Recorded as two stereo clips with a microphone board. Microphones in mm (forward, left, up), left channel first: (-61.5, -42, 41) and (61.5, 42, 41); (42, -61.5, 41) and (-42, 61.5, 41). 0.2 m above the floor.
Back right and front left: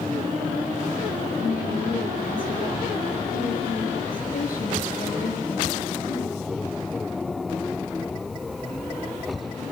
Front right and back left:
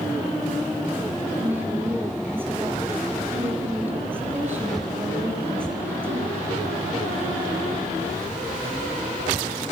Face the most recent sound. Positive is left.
turn(degrees=-160)